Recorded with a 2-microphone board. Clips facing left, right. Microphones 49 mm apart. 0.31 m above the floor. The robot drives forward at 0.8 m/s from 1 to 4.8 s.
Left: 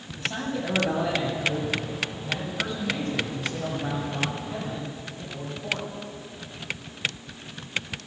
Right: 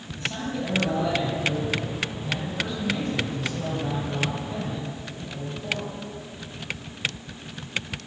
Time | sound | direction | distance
0.2 | a man speaking | 10° left (ahead or behind) | 7.5 m